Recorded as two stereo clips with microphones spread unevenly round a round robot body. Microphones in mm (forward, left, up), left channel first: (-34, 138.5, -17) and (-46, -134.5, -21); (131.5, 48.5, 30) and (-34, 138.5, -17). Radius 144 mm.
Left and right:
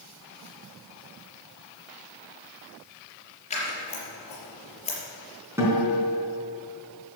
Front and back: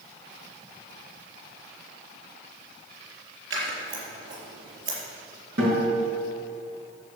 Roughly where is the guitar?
Behind.